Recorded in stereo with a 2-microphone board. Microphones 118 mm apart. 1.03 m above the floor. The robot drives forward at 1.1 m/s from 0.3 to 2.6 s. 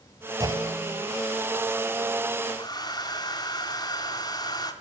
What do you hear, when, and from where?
0.4 s a clunk: 30° right (ahead or behind), 2.5 m; by 1.0 s 40° right (ahead or behind), 2 m
2.6 s a hair dryer: 35° left (ahead or behind), 3 m